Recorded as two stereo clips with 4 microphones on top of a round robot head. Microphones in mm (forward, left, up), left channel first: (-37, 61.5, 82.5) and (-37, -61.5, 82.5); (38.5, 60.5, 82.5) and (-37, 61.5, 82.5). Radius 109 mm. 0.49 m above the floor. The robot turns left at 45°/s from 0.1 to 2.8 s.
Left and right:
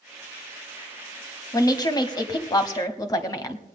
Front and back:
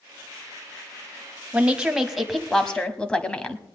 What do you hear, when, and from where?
1.5 s a woman speaking: 120° left, 1.5 m; by 3.6 s 60° left, 1.5 m